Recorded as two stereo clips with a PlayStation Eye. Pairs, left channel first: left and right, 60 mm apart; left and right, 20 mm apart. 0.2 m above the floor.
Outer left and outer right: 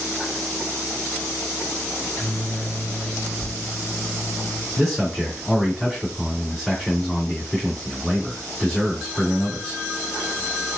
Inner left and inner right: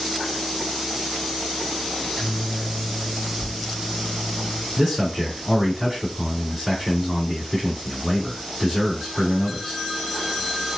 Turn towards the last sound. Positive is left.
turn(degrees=0)  # may be behind; listen again after turning